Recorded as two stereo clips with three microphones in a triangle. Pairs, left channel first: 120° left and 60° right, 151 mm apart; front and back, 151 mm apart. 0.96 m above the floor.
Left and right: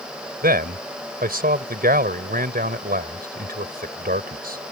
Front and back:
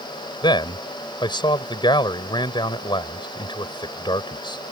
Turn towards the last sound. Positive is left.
turn(degrees=-60)